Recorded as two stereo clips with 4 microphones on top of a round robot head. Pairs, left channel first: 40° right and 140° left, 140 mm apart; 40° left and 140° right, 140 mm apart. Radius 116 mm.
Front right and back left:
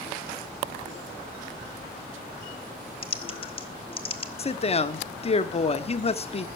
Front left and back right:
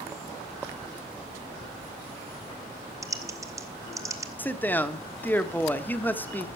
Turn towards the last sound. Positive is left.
turn(degrees=-35)